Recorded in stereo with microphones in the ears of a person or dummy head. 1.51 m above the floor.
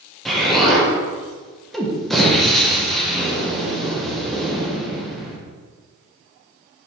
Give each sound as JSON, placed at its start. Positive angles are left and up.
{"t": 0.2, "sound": "an explosion", "side_deg": 0, "distance_m": 1.5}